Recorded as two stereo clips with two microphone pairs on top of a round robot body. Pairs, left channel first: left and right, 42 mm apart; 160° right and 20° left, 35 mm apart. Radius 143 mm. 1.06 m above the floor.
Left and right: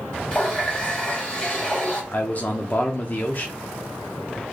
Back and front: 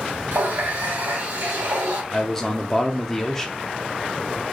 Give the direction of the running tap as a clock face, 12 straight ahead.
11 o'clock.